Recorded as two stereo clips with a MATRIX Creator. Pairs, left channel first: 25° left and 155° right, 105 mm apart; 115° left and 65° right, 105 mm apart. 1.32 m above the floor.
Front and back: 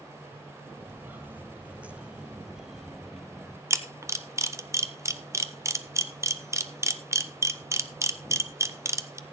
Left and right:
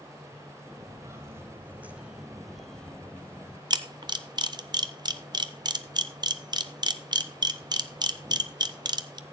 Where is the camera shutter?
100° right, 0.8 m.